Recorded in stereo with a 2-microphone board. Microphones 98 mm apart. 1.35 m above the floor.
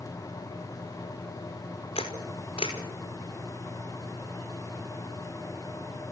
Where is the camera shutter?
80° left, 5 m.